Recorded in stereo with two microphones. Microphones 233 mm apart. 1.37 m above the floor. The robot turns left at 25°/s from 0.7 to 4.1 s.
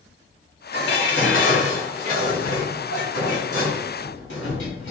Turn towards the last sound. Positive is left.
turn(degrees=55)